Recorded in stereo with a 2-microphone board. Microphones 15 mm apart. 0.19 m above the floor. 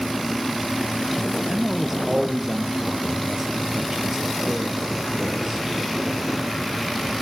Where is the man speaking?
35° right (ahead or behind), 3.5 m.